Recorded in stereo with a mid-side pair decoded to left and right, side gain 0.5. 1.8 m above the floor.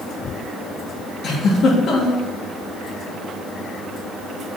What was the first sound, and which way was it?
A giggle, 60° left.